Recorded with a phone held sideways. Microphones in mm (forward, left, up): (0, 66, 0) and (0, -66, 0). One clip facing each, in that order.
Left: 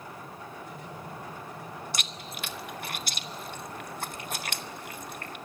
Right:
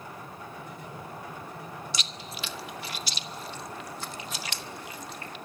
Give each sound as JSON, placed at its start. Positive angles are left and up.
{"t": 1.9, "sound": "chewing", "side_deg": 55, "distance_m": 0.9}